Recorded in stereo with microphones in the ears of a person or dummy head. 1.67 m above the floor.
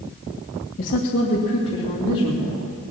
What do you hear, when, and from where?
0.8 s a woman speaking: 45° left (ahead or behind), 1.4 m; by 2.6 s 25° left (ahead or behind), 4 m